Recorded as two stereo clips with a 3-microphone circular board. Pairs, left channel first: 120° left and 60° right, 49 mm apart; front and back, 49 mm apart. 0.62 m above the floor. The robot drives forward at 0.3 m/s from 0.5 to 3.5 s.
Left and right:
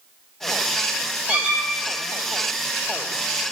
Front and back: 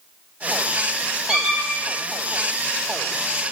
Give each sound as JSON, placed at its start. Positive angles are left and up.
{"t": 1.3, "sound": "a squeak", "azimuth_deg": -115, "distance_m": 0.8}